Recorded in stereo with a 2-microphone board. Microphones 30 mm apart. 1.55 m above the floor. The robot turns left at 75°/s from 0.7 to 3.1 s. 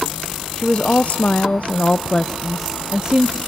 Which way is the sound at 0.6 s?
145° left.